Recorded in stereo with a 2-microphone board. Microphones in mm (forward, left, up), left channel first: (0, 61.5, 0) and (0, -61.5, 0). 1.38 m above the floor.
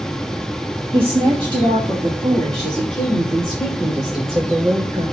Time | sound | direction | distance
0.9 | a woman speaking | 45° right (ahead or behind) | 1.8 m